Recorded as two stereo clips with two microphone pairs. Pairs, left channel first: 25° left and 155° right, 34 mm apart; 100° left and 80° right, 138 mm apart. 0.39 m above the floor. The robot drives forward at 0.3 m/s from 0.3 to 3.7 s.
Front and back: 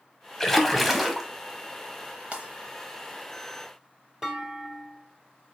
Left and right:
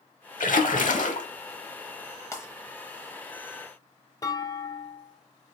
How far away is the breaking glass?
About 1.0 m.